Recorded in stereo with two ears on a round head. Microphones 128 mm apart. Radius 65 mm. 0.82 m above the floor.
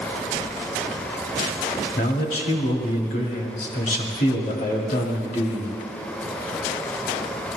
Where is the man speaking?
60° left (ahead or behind), 2 m.